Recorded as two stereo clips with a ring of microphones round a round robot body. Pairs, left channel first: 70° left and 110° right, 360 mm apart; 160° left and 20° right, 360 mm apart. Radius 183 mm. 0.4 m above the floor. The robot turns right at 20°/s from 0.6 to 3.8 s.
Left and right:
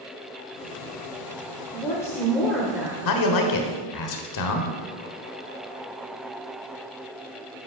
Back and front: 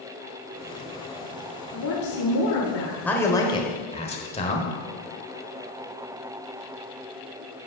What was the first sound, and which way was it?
A woman speaking, 140° left.